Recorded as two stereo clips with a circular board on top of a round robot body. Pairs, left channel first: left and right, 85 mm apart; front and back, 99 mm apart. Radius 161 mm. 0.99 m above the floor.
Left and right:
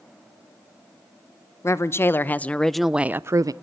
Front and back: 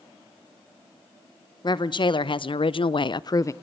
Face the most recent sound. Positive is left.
turn(degrees=-55)